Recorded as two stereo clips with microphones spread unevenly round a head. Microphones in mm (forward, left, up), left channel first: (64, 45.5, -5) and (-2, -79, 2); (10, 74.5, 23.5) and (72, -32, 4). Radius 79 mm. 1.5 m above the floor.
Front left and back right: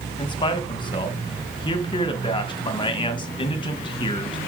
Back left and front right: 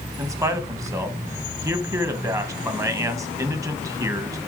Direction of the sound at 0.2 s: 5° left.